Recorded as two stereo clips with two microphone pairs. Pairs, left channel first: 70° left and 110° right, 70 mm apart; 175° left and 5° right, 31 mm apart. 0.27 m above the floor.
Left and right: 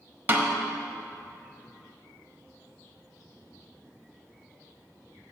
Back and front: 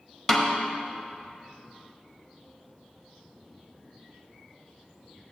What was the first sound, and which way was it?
A snare drum, 125° right.